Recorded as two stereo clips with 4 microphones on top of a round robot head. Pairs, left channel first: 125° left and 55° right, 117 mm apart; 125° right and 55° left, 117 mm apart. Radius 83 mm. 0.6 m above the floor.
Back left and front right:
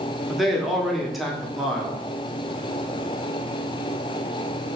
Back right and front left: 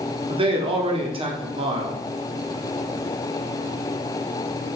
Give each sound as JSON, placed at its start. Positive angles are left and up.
{"t": 0.3, "sound": "a man speaking", "azimuth_deg": 35, "distance_m": 1.5}